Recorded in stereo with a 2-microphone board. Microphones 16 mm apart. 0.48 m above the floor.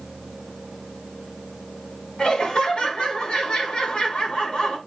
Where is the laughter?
75° left (ahead or behind), 4.5 m.